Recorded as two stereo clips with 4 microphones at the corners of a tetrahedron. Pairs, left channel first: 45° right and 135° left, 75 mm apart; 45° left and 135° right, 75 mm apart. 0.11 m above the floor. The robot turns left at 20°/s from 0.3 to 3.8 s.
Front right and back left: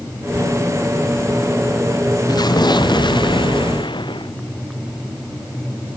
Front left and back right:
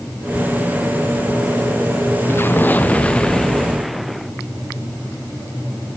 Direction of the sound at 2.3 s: 15° right.